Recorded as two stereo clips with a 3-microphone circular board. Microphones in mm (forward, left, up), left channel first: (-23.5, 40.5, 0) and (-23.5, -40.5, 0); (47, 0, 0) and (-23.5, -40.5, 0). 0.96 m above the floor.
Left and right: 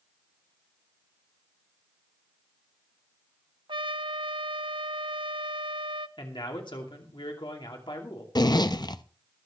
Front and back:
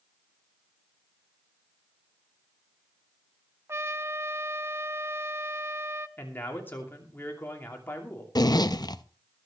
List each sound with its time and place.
3.7 s a trumpet: 90° right, 0.6 m
6.2 s a man speaking: 90° left, 2.5 m
8.3 s a zipper: 60° left, 0.6 m